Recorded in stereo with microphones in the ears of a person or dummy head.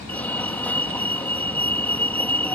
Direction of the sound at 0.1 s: 10° left (ahead or behind).